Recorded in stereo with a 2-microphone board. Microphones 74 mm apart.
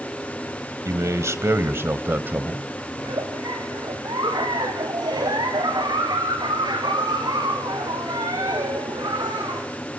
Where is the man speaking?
50° right (ahead or behind), 1.9 m; by 2.6 s 25° right (ahead or behind), 1.9 m.